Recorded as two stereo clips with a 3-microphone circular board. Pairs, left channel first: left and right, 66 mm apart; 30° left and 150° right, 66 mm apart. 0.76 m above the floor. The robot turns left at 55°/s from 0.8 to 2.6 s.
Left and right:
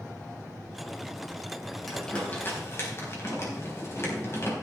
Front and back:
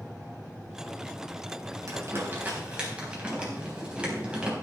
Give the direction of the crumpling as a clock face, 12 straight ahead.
6 o'clock.